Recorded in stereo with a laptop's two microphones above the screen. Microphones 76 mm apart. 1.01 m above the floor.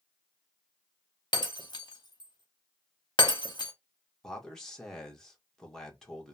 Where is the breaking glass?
75° left (ahead or behind), 0.8 m.